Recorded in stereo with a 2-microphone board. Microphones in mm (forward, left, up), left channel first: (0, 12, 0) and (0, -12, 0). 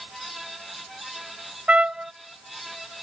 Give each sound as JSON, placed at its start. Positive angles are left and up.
{"t": 1.7, "sound": "a trumpet", "side_deg": -65}